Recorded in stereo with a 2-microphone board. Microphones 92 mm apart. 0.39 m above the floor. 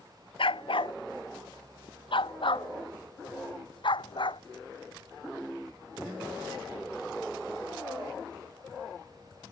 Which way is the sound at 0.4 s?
75° left (ahead or behind).